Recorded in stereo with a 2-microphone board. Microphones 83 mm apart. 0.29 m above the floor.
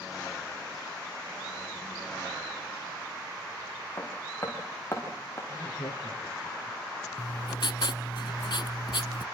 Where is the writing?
70° left (ahead or behind), 1.4 m.